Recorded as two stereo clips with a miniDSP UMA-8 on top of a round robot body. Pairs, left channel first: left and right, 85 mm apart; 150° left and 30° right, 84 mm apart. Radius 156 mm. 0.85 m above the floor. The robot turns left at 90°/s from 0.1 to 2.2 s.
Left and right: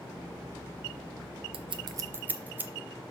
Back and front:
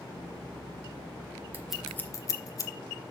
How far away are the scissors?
About 0.6 m.